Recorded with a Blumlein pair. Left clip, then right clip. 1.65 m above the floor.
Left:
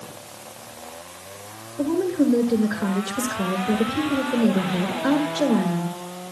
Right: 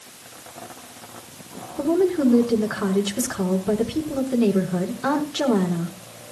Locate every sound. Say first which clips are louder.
1.8 s a woman speaking: right 2 dB; 25° right, 6 m